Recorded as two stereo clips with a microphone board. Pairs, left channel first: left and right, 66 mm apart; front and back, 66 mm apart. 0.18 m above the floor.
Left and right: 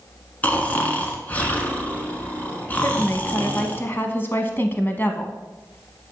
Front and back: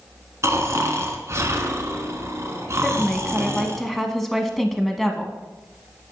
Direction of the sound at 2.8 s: 80° left.